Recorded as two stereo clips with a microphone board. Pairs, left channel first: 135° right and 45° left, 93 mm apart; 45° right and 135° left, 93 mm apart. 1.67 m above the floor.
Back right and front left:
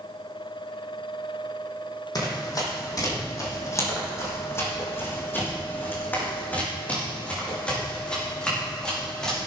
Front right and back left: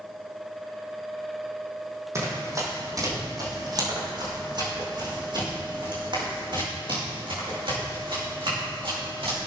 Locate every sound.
2.1 s running footsteps: 170° right, 4 m; by 9.5 s 140° left, 6.5 m